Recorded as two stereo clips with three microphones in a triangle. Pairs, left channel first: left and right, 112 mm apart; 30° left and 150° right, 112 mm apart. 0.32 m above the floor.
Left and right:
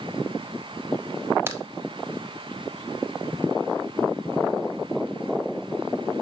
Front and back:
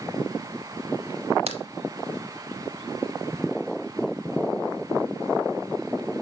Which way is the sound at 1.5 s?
155° right.